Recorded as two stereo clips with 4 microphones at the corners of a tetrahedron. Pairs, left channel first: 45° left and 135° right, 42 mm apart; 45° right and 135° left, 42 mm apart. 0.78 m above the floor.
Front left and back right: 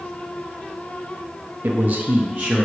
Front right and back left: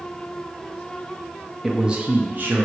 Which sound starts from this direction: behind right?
A man speaking, at 1.6 s.